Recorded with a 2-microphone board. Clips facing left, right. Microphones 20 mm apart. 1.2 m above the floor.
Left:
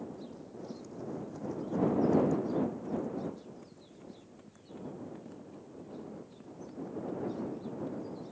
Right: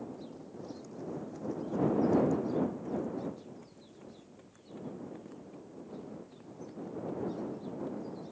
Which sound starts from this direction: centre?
Running footsteps, at 0.3 s.